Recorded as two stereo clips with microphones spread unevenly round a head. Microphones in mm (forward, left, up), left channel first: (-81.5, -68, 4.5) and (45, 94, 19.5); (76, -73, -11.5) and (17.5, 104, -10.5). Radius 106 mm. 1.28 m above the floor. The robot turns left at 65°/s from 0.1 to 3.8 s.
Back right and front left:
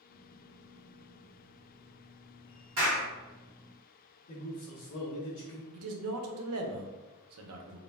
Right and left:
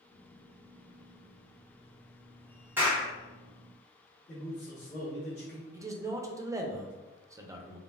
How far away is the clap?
About 1.6 m.